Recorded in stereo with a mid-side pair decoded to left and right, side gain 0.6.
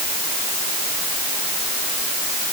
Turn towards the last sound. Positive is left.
No sound to turn to.